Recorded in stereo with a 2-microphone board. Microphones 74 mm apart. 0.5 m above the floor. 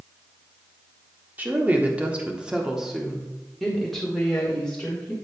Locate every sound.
1.4 s a woman speaking: 25° right (ahead or behind), 1.2 m; by 5.1 s 10° left (ahead or behind), 2.0 m